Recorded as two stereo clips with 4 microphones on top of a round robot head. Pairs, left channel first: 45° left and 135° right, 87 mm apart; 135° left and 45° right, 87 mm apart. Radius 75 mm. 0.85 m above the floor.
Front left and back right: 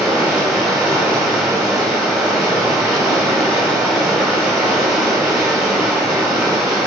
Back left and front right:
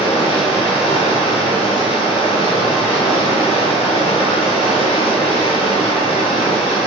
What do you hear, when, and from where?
0.0 s running water: 135° left, 2.5 m